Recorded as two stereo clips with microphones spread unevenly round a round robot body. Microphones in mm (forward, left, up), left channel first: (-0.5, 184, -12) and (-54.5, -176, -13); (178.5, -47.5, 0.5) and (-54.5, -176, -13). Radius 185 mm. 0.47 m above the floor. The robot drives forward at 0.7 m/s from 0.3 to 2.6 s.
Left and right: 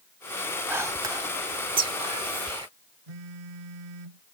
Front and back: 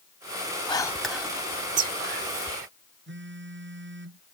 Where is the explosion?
No explosion in this recording.